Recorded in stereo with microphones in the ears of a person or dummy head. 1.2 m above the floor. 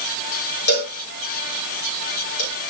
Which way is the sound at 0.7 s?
65° left (ahead or behind).